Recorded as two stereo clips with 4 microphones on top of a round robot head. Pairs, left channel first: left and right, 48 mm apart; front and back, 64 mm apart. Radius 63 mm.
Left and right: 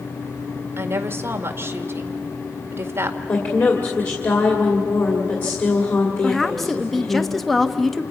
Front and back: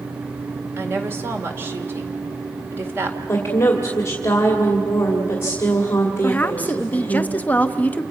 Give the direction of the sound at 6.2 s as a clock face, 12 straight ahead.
12 o'clock.